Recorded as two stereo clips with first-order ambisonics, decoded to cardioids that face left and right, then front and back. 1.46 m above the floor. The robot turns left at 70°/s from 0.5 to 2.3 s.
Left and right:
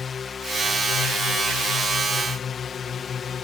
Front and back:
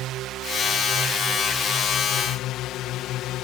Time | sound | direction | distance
0.0 | a drone | 155° left | ?